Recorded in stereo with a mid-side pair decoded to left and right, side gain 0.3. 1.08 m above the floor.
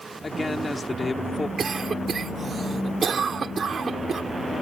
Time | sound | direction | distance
0.2 | a man speaking | 35° left | ?
1.6 | a cough | 65° right | ?